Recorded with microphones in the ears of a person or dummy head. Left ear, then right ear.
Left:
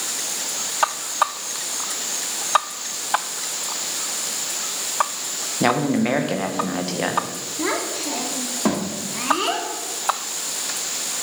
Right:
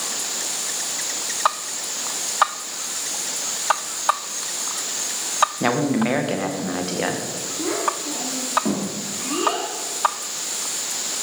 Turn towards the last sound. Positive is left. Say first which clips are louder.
# even
turn(degrees=60)  # may be behind; listen again after turning